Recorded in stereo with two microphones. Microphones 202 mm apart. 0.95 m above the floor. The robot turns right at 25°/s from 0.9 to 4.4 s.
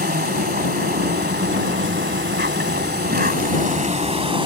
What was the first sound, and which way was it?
An insect, 120° right.